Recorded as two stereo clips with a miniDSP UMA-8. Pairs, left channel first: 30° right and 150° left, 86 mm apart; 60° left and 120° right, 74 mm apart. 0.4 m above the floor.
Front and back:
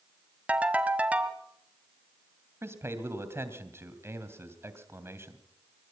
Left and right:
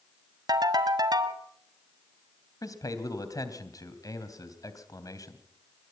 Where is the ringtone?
135° right, 1.8 m.